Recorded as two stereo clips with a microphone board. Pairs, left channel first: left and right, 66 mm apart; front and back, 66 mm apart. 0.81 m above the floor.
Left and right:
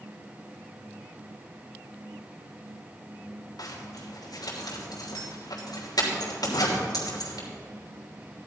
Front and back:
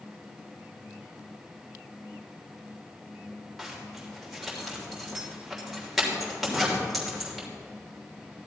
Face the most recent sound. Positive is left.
turn(degrees=90)